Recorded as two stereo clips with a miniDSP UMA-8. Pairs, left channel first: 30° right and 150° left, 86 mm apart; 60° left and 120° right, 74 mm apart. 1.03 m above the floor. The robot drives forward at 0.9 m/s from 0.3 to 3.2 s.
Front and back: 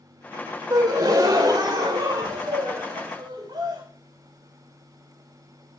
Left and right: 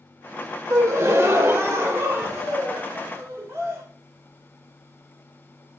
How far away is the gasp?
About 1.3 m.